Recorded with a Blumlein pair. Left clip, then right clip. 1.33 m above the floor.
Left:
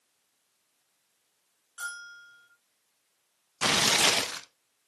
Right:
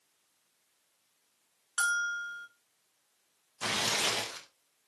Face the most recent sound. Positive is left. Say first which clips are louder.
# left 7 dB
turn(degrees=65)